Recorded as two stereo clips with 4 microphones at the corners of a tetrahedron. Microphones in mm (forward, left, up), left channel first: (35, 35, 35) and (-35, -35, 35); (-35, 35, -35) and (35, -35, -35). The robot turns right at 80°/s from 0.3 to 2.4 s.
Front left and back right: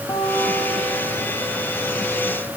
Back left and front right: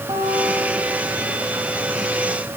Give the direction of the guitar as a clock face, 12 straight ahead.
12 o'clock.